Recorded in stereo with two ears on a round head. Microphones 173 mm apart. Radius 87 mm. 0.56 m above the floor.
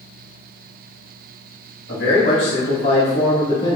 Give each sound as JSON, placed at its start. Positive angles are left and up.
{"t": 1.9, "sound": "a man speaking", "side_deg": 60, "distance_m": 1.7}